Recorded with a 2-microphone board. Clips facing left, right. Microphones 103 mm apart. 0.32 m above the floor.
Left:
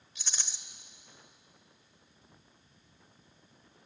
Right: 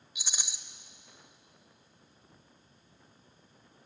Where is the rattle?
10° right (ahead or behind), 0.9 m.